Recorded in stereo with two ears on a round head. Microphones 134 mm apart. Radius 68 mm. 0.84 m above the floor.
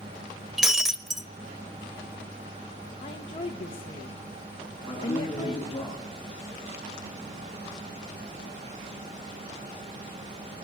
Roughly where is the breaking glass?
Centre.